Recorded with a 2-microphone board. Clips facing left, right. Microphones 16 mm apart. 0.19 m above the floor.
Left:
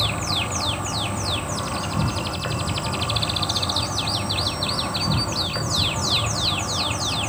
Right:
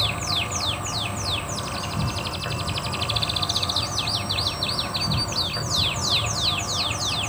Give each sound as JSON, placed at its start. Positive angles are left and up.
{"t": 0.0, "sound": "an insect", "side_deg": 75, "distance_m": 2.5}